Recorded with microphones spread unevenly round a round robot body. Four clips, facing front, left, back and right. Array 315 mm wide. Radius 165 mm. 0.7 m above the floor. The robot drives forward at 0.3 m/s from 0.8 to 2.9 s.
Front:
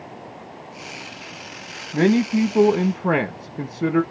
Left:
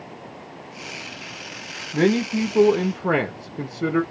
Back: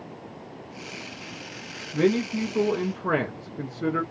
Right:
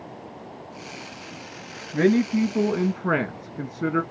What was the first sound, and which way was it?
A man speaking, 20° left.